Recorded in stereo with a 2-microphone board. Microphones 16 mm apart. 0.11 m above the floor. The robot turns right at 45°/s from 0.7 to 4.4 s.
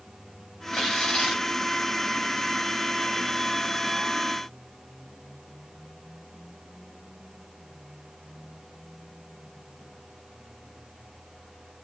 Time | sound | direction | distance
0.7 | tearing paper | 75° left | 5 m